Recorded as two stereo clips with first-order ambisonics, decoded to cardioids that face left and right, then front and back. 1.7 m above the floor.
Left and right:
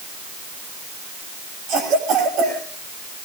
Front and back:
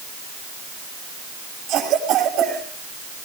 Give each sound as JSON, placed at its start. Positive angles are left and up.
{"t": 1.7, "sound": "a cough", "azimuth_deg": -135, "distance_m": 5.5}